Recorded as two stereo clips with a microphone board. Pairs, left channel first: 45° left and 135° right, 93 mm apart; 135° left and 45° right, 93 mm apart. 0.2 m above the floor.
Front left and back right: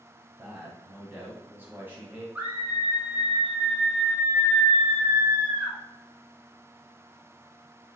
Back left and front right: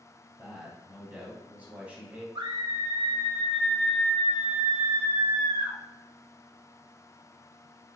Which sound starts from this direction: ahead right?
A scream, at 2.4 s.